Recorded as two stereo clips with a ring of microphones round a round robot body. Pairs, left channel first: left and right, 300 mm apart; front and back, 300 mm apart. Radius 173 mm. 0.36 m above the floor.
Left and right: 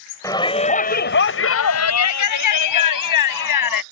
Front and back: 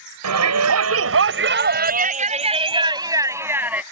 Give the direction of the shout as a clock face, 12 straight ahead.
6 o'clock.